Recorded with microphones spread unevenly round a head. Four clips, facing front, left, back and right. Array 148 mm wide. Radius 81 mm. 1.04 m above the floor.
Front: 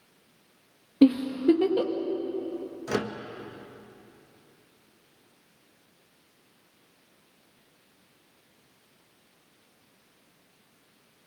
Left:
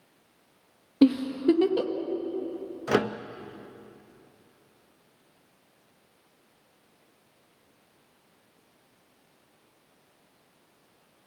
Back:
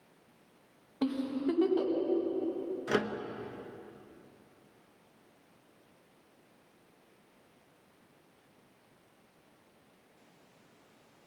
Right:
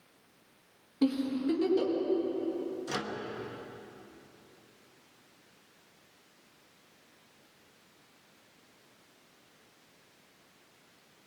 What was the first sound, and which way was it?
A giggle, 40° left.